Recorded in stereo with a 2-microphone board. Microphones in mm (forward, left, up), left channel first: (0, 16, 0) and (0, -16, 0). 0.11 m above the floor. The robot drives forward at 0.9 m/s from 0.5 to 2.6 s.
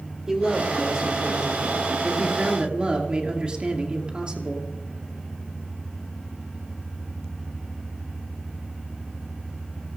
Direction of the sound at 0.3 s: 20° right (ahead or behind).